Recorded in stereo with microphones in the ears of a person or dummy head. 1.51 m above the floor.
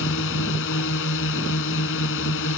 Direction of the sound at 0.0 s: 75° left (ahead or behind).